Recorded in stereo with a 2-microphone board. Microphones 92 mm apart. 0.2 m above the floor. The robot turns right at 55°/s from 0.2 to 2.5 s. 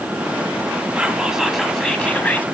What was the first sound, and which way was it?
Whispering, 15° right (ahead or behind).